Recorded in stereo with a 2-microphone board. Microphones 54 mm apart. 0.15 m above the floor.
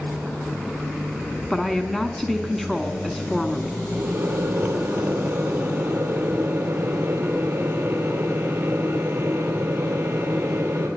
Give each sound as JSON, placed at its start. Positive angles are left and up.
{"t": 1.5, "sound": "a woman speaking", "side_deg": 5, "distance_m": 1.0}
{"t": 3.9, "sound": "a microwave", "side_deg": -35, "distance_m": 2.5}